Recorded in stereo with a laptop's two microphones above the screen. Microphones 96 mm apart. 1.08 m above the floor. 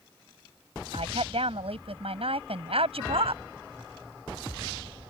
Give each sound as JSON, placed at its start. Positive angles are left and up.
{"t": 0.9, "sound": "a woman speaking", "side_deg": -85}